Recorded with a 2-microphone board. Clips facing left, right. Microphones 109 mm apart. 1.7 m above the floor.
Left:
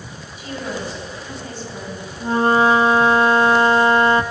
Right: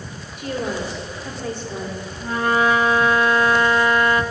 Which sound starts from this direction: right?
A woman speaking, at 0.4 s.